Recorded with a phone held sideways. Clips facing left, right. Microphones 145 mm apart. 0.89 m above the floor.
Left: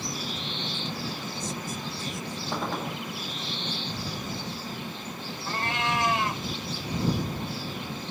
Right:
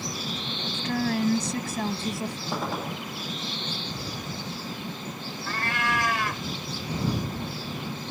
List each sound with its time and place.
0.7 s a woman speaking: 85° right; by 2.4 s 75° right (ahead or behind)
2.5 s a gunshot: 5° right (ahead or behind)
5.5 s a cat meowing: 25° left (ahead or behind)